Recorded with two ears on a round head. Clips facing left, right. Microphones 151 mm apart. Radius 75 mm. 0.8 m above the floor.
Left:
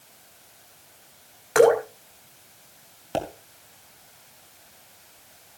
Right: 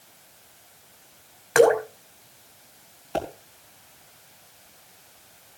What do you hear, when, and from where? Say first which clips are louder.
1.6 s dripping: even; centre (ahead or behind), 5.5 m
3.1 s a pop: even; 40° left (ahead or behind), 4 m